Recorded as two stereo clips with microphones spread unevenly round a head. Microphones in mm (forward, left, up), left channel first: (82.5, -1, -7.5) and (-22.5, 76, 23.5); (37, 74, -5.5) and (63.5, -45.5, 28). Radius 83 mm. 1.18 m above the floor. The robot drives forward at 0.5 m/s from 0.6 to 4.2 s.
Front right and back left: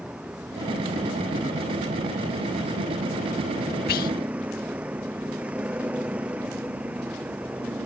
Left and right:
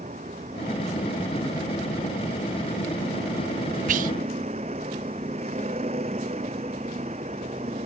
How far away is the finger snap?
No finger snap in this recording.